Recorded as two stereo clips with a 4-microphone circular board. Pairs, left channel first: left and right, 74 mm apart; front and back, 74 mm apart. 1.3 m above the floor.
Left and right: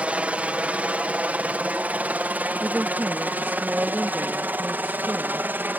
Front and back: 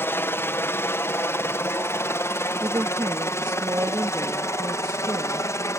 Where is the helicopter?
30° right; by 5.8 s 35° right.